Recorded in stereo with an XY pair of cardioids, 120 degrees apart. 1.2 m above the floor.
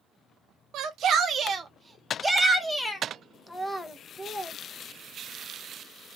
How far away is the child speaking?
About 0.8 m.